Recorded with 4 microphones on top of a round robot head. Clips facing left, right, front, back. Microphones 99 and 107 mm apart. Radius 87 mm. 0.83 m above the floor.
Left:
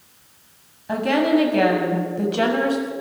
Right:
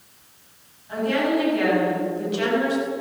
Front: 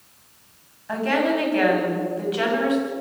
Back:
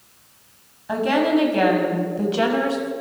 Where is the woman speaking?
105° left, 6.5 m; by 2.9 s 130° left, 6 m.